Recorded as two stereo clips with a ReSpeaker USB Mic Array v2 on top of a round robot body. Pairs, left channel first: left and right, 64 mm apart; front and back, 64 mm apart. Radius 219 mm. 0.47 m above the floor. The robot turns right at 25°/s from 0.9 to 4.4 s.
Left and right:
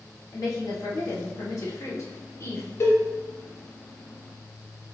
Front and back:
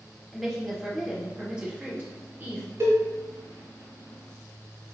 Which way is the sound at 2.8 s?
135° left.